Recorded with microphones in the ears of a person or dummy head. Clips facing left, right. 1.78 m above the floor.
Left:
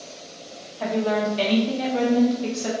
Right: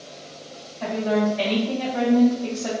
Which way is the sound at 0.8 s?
50° left (ahead or behind).